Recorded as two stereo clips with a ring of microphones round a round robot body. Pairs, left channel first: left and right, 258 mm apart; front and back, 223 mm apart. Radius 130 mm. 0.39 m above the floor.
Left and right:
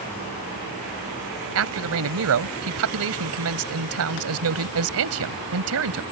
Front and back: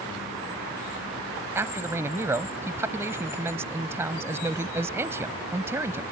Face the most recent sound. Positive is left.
turn(degrees=-100)